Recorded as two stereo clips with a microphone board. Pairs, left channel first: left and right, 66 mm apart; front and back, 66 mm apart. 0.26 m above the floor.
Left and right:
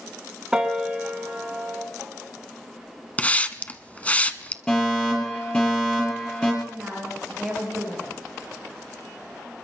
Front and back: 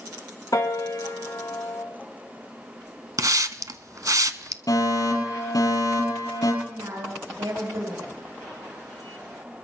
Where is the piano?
15° right, 2 m.